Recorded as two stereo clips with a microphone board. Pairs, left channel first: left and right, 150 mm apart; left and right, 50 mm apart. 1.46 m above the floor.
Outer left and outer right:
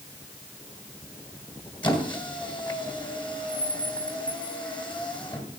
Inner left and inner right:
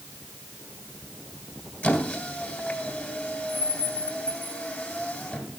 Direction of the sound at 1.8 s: 35° left (ahead or behind).